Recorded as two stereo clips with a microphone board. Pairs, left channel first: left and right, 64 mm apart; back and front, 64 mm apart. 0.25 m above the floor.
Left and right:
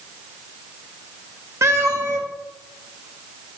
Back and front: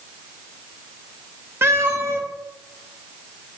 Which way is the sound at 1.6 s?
50° right.